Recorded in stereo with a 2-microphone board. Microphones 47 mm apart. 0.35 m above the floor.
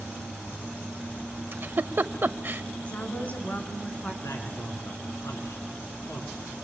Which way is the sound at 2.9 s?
35° left (ahead or behind).